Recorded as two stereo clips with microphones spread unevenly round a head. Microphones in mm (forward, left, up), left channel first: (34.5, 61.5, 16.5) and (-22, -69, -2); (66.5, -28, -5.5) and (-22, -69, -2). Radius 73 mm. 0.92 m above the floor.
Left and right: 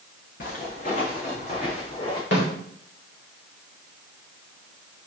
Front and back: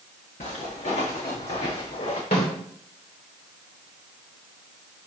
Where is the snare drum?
55° left, 3 m.